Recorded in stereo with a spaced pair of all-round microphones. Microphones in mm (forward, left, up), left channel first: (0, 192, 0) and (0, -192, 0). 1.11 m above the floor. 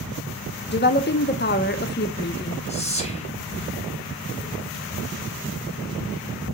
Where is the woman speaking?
25° left (ahead or behind), 0.7 m.